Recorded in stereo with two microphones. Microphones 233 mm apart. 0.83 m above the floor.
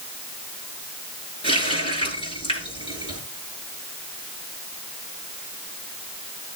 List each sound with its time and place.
1.4 s a running tap: 20° left (ahead or behind), 8.5 m